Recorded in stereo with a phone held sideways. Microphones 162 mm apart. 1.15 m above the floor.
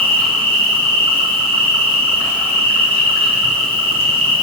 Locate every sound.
0.0 s an insect: 35° right (ahead or behind), 3 m